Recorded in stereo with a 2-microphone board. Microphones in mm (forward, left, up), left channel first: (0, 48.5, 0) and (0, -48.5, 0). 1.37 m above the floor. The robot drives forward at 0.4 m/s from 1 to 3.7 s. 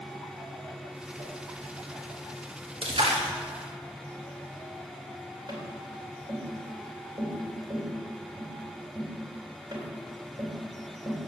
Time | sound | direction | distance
1.2 | a whoosh | 25° right (ahead or behind) | 4.5 m
2.8 | a splash | 75° right (ahead or behind) | 2.5 m
5.5 | tapping | 50° right (ahead or behind) | 3.5 m